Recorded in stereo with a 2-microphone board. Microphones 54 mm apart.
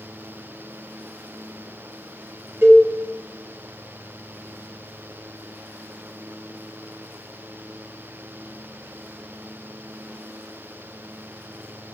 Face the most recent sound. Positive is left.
turn(degrees=-50)  # may be behind; listen again after turning